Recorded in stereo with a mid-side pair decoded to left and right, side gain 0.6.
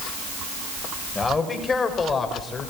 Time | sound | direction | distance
1.1 | a man speaking | 20° left | 6 m